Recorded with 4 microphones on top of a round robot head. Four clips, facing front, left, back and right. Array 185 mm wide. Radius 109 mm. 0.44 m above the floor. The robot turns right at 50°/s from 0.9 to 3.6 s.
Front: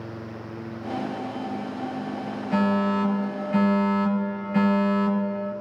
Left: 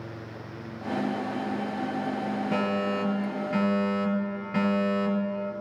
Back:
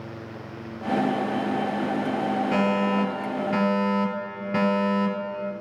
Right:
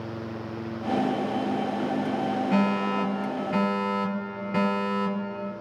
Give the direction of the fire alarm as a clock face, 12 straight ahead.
7 o'clock.